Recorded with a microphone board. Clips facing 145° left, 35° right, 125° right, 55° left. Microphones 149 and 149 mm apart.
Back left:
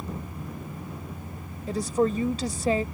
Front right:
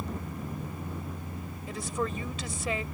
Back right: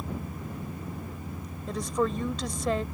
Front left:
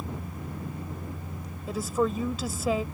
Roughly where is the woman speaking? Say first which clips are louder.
Back left 9 dB, front left 1 dB; behind left.